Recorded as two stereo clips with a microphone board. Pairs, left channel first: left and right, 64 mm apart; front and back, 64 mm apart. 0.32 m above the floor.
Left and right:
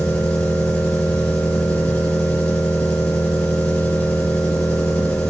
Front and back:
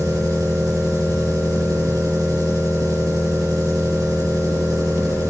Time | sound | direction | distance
0.0 | an engine running | 160° left | 4 m